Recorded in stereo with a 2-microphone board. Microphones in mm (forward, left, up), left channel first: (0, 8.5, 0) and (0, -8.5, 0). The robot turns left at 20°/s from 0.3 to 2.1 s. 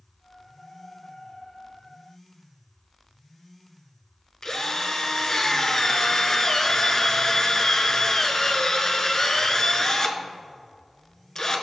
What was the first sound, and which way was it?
A drill, 35° left (ahead or behind).